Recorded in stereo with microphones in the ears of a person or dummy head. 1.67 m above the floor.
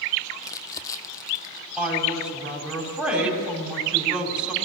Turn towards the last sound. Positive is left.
turn(degrees=-5)  # may be behind; listen again after turning